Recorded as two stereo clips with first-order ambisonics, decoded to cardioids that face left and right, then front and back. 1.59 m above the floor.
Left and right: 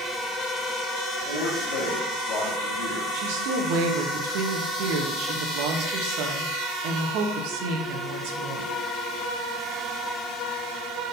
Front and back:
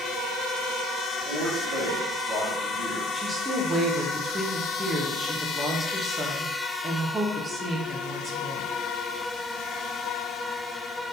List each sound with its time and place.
1.2 s a man speaking: 120° left, 1.6 m
3.1 s a woman speaking: 105° right, 0.8 m